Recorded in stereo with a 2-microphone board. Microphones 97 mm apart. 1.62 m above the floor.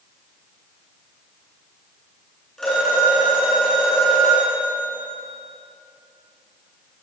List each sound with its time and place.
2.6 s a phone ringing: 5° left (ahead or behind), 9.5 m